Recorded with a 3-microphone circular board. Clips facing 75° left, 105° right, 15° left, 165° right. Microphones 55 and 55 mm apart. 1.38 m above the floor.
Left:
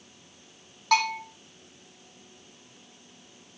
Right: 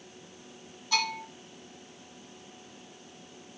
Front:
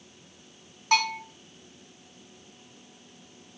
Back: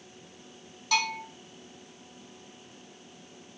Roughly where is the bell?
Ahead left.